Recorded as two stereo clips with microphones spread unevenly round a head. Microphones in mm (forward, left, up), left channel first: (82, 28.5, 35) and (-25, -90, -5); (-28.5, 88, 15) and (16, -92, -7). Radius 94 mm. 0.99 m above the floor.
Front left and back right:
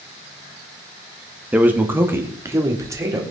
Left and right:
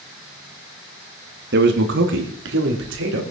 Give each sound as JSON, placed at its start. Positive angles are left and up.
{"t": 1.5, "sound": "a man speaking", "azimuth_deg": -55, "distance_m": 2.0}